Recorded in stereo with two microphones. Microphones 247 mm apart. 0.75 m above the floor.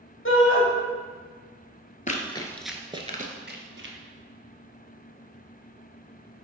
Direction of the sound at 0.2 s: 55° left (ahead or behind).